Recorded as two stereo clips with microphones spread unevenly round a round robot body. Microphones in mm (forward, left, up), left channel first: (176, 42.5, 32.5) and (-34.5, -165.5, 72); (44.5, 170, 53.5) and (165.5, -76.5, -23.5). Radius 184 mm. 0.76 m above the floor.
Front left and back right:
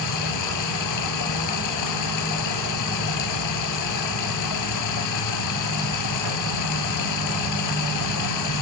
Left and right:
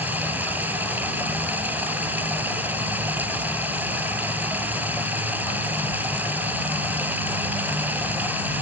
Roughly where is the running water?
Ahead left.